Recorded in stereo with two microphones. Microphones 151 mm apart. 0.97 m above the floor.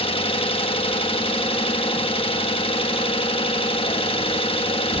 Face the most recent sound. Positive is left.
turn(degrees=35)  # may be behind; listen again after turning